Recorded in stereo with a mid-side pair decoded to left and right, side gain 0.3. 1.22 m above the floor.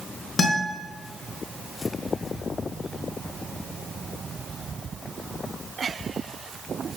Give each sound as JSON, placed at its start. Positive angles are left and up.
{"t": 0.4, "sound": "a guitar", "azimuth_deg": 65, "distance_m": 3.0}